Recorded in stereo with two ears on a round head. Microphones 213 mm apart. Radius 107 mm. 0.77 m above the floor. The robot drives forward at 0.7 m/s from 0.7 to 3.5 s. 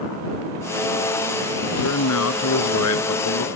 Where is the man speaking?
70° left (ahead or behind); by 3.5 s 75° left (ahead or behind).